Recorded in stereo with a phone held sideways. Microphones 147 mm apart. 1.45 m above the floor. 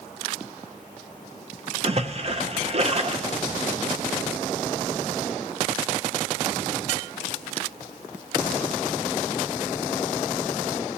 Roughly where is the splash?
Right.